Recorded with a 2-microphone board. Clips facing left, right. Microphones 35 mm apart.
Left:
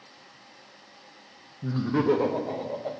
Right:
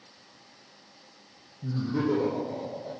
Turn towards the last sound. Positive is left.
turn(degrees=60)  # may be behind; listen again after turning